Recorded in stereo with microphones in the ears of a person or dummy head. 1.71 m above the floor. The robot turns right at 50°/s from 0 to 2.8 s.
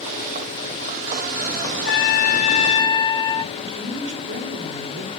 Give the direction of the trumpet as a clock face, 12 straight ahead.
8 o'clock.